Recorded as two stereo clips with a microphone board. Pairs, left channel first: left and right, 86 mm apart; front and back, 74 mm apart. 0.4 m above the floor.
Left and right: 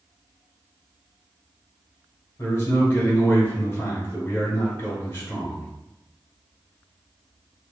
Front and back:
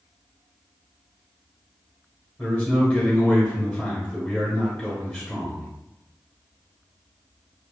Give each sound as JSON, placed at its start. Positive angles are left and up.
{"t": 2.4, "sound": "a man speaking", "azimuth_deg": 60, "distance_m": 1.2}